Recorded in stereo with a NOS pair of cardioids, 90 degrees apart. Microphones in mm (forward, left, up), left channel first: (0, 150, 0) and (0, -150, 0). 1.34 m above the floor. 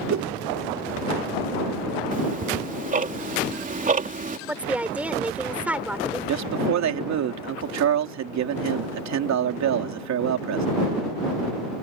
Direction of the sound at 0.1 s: 60° right.